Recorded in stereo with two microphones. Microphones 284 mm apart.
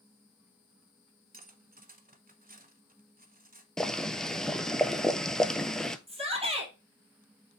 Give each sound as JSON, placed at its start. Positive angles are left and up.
{"t": 1.3, "sound": "cutlery clinking", "side_deg": -30, "distance_m": 0.9}
{"t": 3.8, "sound": "boiling", "side_deg": 0, "distance_m": 0.6}
{"t": 6.1, "sound": "a shout", "side_deg": -20, "distance_m": 3.5}